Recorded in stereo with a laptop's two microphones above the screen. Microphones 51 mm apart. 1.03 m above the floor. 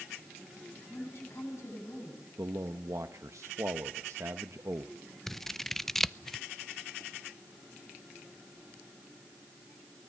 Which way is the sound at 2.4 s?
75° right (ahead or behind).